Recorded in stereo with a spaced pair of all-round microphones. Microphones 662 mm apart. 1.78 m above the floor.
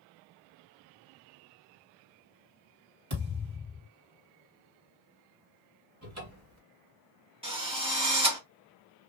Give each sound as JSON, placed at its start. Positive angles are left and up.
{"t": 3.1, "sound": "a thud", "side_deg": -45, "distance_m": 2.5}
{"t": 6.0, "sound": "a cupboard door", "side_deg": -25, "distance_m": 1.5}
{"t": 7.4, "sound": "a drill", "side_deg": -10, "distance_m": 1.5}